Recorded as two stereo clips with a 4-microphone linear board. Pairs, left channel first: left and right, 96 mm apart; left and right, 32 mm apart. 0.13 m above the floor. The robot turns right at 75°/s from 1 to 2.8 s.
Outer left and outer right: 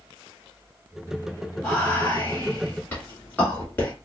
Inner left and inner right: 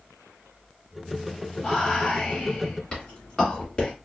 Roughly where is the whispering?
Centre.